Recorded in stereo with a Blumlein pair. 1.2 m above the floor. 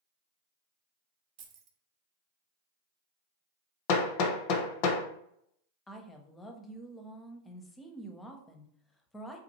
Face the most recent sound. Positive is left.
turn(degrees=10)